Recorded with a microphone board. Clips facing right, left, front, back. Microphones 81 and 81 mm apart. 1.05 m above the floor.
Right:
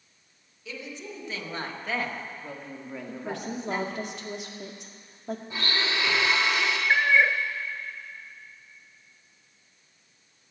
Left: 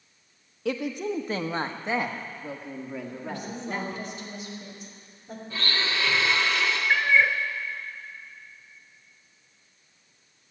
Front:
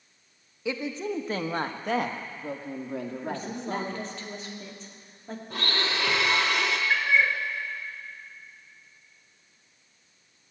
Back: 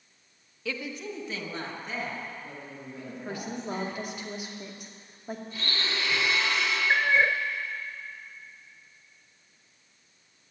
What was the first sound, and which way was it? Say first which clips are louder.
A woman speaking: left 11 dB, front 5 dB; 70° left.